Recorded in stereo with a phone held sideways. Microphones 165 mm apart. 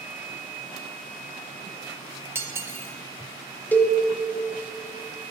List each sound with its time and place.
2.4 s cutlery clinking: 15° right (ahead or behind), 0.6 m
3.7 s a cowbell: 10° left (ahead or behind), 0.5 m